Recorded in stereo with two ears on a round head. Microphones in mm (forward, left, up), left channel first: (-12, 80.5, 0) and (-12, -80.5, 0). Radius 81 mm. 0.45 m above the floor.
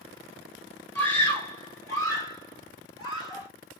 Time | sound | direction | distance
0.9 | a scream | 10° left (ahead or behind) | 1.8 m